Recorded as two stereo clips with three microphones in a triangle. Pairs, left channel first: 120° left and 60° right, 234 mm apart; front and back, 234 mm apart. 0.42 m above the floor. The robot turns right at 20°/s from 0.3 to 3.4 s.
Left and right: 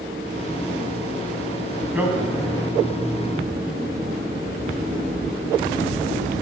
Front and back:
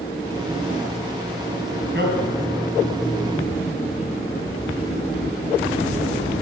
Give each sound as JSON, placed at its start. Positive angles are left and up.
{"t": 1.9, "sound": "a man speaking", "azimuth_deg": -145, "distance_m": 3.5}